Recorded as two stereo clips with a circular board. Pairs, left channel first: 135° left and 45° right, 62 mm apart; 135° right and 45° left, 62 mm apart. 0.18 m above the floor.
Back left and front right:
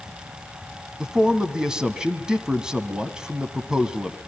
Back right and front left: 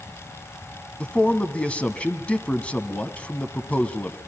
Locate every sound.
1.0 s a man speaking: 100° right, 1.7 m